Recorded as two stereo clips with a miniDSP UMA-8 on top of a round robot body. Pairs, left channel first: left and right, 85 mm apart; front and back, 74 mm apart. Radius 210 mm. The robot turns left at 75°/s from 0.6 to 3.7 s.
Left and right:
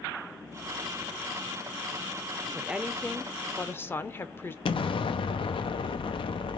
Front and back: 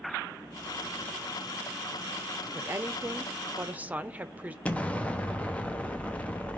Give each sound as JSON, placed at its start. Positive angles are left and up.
{"t": 2.5, "sound": "a woman speaking", "azimuth_deg": -145, "distance_m": 1.0}
{"t": 4.7, "sound": "an explosion", "azimuth_deg": 75, "distance_m": 0.6}